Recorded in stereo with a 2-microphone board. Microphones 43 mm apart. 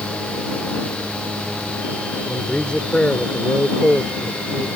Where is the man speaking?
25° left (ahead or behind).